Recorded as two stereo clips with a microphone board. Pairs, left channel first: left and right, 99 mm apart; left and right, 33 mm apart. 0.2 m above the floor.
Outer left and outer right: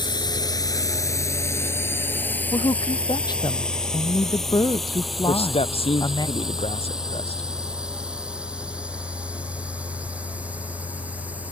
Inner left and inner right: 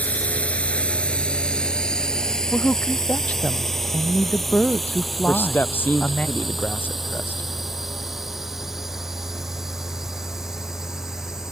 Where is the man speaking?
80° left.